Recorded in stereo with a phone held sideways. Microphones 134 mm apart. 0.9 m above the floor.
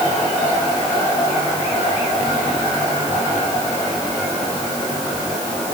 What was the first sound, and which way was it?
Only background noise.